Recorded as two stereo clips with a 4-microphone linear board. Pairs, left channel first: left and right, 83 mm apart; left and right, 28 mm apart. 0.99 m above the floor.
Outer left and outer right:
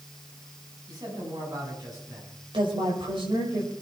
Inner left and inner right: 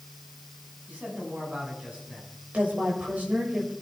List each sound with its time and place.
0.9 s a man speaking: 50° right (ahead or behind), 7 m
2.5 s a woman speaking: 80° right, 6 m